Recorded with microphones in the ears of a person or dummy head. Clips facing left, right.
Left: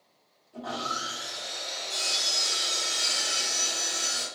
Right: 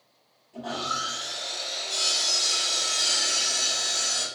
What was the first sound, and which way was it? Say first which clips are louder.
Sawing: right 2 dB; 5° right (ahead or behind).